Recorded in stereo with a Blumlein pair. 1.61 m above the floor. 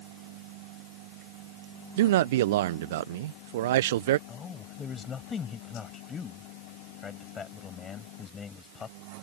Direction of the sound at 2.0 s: 55° right.